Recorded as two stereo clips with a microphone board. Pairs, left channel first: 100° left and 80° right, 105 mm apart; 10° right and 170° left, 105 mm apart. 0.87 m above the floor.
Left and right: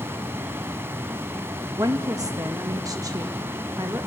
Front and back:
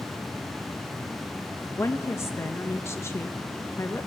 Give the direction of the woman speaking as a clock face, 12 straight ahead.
2 o'clock.